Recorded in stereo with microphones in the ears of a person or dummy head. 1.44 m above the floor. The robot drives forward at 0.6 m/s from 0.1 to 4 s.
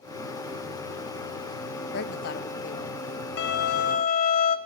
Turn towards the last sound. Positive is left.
turn(degrees=45)  # may be behind; listen again after turning